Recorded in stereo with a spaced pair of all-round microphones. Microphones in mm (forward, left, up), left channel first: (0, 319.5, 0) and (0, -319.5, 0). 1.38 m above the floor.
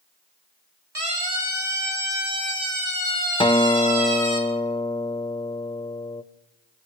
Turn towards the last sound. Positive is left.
turn(degrees=10)  # may be behind; listen again after turning